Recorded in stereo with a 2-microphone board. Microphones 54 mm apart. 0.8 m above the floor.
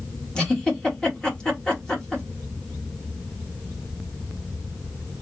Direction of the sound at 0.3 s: 15° left (ahead or behind).